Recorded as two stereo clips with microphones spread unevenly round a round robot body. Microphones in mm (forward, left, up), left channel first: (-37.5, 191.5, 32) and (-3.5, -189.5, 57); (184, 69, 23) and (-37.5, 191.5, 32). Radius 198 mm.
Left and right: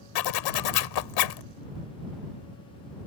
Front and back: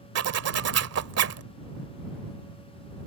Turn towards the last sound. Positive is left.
turn(degrees=125)